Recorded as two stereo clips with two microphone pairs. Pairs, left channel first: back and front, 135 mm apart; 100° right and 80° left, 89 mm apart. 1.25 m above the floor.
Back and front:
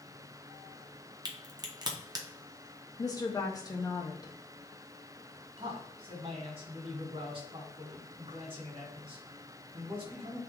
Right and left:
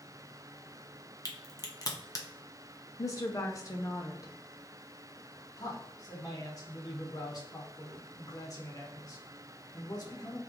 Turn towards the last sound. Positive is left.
turn(degrees=-50)